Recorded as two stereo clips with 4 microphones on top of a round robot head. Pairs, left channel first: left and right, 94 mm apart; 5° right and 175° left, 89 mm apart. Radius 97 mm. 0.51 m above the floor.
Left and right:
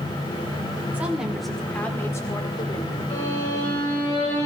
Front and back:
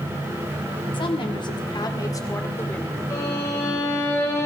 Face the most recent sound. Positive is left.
turn(degrees=50)